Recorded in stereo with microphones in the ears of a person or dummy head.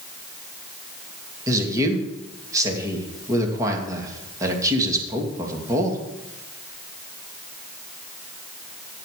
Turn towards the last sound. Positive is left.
turn(degrees=-15)  # may be behind; listen again after turning